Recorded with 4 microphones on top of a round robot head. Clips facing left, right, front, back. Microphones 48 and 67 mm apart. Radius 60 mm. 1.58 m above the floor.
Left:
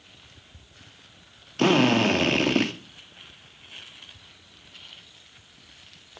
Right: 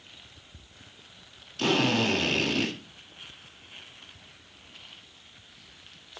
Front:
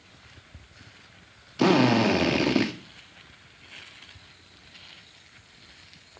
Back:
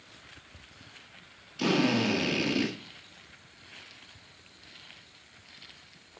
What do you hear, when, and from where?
1.6 s a drill: 40° left, 2 m